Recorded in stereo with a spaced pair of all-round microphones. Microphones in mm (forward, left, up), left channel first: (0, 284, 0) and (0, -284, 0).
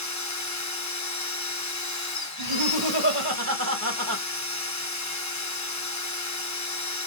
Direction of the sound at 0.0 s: 35° left (ahead or behind).